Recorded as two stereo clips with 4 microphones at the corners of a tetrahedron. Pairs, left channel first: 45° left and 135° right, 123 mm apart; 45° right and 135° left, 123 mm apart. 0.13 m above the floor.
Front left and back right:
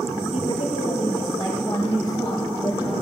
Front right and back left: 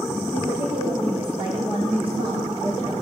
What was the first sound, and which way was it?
A woman speaking, 85° left.